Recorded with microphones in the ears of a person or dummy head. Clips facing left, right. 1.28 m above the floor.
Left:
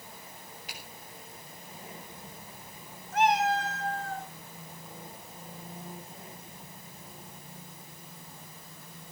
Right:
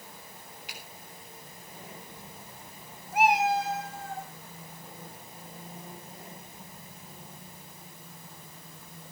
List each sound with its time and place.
0.7 s a finger snap: 35° left (ahead or behind), 8.5 m
3.1 s a cat meowing: 10° right (ahead or behind), 2.5 m